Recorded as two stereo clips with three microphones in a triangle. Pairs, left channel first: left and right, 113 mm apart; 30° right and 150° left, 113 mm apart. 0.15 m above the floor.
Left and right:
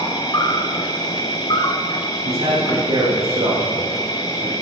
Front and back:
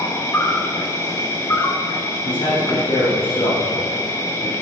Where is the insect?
35° left, 1.4 m.